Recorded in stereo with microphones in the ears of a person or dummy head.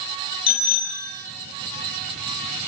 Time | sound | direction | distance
0.5 | a bicycle bell | 30° left (ahead or behind) | 7 m